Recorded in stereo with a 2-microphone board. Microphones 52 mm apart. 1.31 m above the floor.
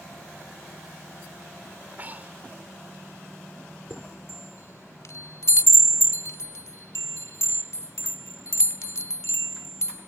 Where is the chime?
65° left (ahead or behind).